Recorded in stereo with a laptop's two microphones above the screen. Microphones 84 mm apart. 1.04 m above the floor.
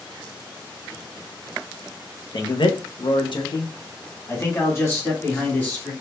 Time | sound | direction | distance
2.3 | a man speaking | 60° left (ahead or behind) | 1.1 m